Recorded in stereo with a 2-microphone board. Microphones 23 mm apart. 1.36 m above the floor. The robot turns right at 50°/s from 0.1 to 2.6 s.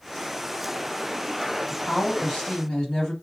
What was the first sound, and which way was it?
A woman speaking, 105° left.